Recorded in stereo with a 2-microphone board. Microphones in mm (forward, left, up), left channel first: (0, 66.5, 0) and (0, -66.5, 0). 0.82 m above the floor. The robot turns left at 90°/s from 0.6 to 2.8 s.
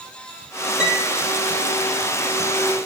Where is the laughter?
I don't hear laughter.